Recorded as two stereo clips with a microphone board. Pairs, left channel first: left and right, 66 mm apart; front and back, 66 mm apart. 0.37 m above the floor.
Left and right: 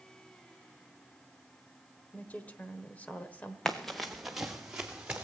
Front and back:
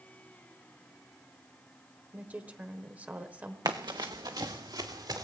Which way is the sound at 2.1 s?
135° left.